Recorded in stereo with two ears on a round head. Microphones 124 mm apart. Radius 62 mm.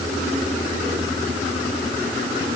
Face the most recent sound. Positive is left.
No sound to turn to.